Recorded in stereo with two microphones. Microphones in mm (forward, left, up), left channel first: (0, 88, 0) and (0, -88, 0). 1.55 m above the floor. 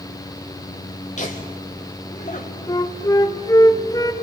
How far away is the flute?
About 0.8 m.